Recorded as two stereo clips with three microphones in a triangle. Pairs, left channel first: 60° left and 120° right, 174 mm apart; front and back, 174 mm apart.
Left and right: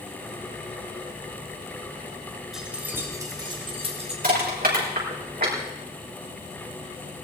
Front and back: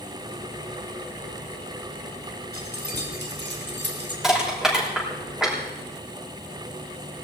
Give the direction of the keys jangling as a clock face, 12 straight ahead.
7 o'clock.